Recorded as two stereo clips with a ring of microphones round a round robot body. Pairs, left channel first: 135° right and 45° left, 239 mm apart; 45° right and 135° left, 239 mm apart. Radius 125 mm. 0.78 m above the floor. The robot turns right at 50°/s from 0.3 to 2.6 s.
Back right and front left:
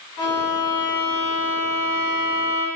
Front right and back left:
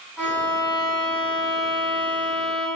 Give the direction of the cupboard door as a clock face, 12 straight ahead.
I don't hear a cupboard door.